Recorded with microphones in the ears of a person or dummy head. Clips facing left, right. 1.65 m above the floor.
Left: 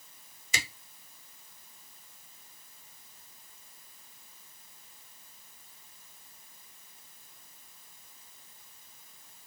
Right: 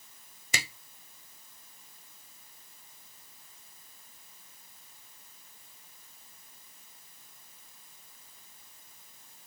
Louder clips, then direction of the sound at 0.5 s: Right 1 dB; 55° right (ahead or behind).